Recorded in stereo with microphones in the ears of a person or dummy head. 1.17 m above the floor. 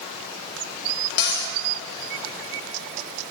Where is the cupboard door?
60° left (ahead or behind), 1.2 m.